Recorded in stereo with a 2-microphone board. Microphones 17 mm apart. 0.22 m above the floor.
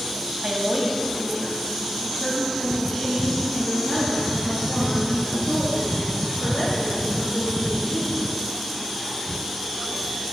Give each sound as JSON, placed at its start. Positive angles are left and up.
{"t": 0.4, "sound": "a woman speaking", "side_deg": -20, "distance_m": 1.1}